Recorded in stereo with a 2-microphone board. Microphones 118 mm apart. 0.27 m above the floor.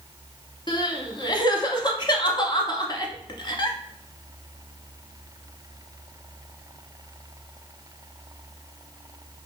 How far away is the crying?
About 0.6 m.